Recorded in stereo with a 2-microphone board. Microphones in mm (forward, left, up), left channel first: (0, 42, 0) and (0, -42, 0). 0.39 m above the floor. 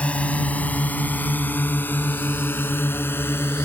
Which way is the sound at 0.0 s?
15° left (ahead or behind).